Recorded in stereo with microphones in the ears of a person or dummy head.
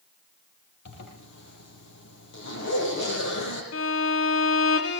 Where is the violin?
70° left (ahead or behind), 3.5 m.